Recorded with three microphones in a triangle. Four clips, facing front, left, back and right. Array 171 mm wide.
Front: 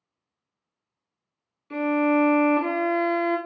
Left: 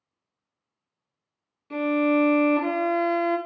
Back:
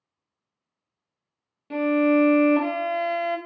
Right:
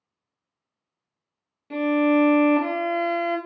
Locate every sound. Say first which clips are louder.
1.7 s a violin: right 2 dB, back 2 dB; 155° right, 0.6 m